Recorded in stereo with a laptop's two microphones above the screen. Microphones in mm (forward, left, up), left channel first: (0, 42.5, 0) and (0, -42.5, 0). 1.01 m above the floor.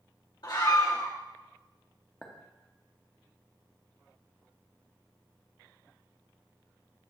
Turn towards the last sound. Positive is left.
turn(degrees=15)  # may be behind; listen again after turning